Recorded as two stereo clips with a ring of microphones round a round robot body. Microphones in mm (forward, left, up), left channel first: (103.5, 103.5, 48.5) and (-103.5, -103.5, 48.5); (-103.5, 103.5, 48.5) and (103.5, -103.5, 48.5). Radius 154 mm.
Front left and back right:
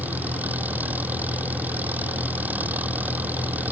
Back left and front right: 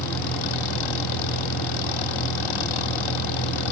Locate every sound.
0.0 s an engine running: 140° left